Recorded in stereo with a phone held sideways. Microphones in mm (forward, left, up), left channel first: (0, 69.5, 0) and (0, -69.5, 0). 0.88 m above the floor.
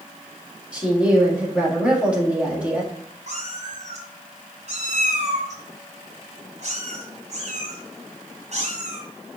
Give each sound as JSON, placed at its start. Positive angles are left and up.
{"t": 0.7, "sound": "a woman speaking", "side_deg": -10, "distance_m": 2.0}
{"t": 3.3, "sound": "a cat meowing", "side_deg": -55, "distance_m": 2.5}